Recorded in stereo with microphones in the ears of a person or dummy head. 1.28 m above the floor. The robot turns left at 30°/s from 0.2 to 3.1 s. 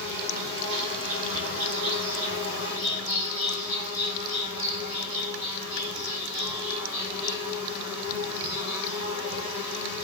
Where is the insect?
50° right, 4.5 m; by 10.0 s 135° right, 4.5 m.